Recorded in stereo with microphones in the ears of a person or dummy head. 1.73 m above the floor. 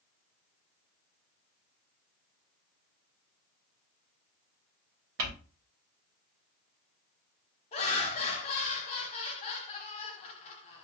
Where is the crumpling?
65° right (ahead or behind), 1.1 m.